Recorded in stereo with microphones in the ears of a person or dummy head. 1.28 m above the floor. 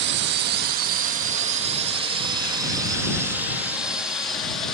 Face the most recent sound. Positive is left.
turn(degrees=5)  # may be behind; listen again after turning